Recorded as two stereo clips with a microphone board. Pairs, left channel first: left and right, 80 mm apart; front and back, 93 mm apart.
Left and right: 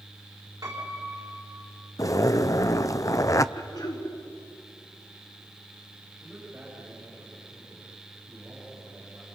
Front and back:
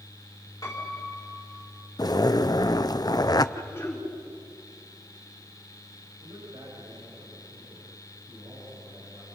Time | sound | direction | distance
0.6 | a piano | 50° right | 5 m
2.0 | a zipper | 45° left | 0.6 m
3.5 | throat clearing | 60° left | 4 m
6.2 | a man speaking | 155° right | 9.5 m